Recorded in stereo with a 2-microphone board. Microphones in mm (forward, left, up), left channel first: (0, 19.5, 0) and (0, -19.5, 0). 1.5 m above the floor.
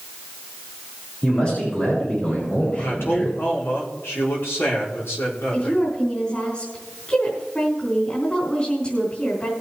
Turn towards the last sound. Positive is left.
turn(degrees=35)  # may be behind; listen again after turning